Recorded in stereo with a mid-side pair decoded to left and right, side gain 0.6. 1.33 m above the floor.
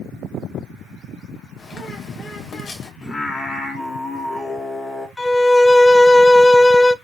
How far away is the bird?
About 1.2 m.